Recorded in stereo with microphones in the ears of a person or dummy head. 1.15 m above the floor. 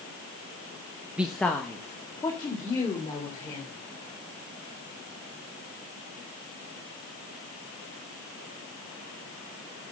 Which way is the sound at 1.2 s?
10° right (ahead or behind).